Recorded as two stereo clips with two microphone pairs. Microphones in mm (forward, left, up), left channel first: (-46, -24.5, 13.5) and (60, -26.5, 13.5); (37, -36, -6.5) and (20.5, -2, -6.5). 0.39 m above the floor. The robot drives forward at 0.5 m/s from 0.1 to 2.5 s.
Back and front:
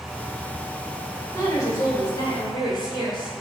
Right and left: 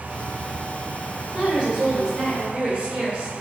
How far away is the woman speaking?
About 1.6 m.